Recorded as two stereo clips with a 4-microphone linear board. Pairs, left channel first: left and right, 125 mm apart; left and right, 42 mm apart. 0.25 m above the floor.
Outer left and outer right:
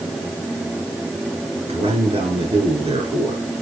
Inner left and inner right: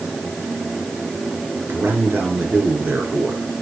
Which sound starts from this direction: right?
A man speaking, at 1.7 s.